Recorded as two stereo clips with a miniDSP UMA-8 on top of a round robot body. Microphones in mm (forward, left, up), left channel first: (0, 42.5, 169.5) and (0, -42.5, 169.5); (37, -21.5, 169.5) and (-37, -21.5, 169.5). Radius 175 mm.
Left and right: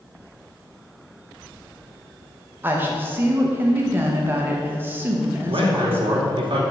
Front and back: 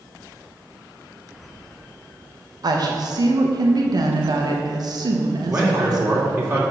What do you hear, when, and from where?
2.6 s a woman speaking: 155° right, 1.3 m
5.5 s a man speaking: 120° right, 3 m